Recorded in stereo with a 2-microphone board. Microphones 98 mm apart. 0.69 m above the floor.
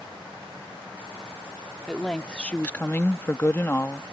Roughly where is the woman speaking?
Centre.